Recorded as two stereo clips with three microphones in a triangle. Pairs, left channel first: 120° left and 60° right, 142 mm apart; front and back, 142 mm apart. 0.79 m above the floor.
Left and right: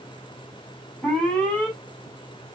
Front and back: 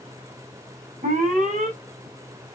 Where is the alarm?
150° right, 6 m.